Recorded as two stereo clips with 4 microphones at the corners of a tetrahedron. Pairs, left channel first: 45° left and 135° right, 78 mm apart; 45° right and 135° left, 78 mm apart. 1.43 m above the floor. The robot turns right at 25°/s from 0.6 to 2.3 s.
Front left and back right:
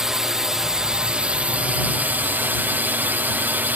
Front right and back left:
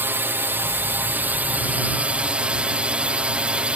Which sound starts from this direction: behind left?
A drone, at 0.0 s.